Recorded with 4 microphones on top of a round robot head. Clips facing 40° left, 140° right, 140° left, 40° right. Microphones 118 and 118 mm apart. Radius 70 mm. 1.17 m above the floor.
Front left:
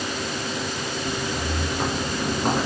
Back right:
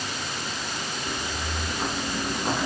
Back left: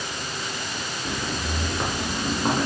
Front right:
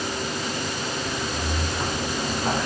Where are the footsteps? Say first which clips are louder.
Front left 6 dB, front right 1 dB; 85° left, 8 m; by 2.7 s 90° left, 6.5 m.